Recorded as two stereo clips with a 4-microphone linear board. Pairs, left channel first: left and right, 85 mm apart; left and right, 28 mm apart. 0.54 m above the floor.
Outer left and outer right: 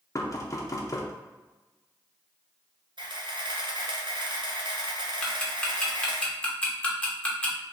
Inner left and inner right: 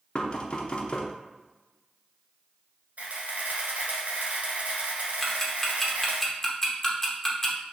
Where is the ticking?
15° left (ahead or behind), 0.8 m.